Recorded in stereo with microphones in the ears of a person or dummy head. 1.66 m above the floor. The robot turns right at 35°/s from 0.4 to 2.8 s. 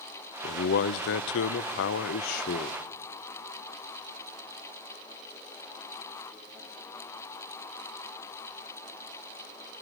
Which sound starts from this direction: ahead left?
A man speaking, at 0.4 s.